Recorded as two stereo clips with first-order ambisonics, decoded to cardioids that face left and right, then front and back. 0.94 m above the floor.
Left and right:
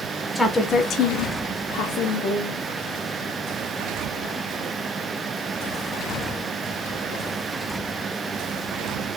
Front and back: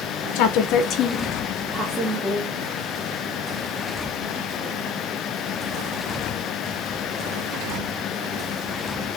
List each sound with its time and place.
0.3 s a woman speaking: straight ahead, 0.7 m; by 2.6 s 115° left, 1.2 m